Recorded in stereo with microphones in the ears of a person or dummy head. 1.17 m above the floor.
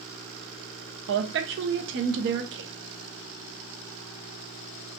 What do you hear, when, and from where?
1.1 s a woman speaking: 60° right (ahead or behind), 0.7 m